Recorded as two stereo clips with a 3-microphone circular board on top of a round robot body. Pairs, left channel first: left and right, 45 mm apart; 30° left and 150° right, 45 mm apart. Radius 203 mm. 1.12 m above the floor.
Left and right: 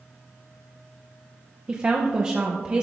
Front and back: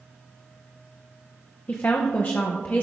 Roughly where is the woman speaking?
Ahead right.